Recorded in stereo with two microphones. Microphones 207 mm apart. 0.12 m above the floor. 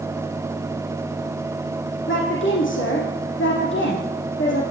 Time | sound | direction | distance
2.1 | a woman speaking | 70° left (ahead or behind) | 5 m